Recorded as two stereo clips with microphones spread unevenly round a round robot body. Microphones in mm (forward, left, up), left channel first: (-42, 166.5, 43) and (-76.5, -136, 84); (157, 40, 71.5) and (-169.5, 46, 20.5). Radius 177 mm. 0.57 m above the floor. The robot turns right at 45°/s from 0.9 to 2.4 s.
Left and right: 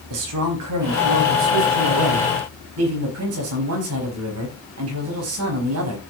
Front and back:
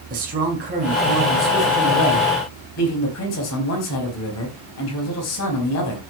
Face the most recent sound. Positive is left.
turn(degrees=-50)